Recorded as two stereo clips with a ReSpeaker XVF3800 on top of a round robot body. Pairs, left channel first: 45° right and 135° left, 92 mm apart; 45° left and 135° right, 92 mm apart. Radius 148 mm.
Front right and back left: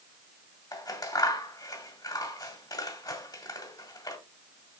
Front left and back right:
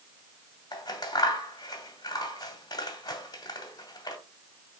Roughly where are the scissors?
Ahead.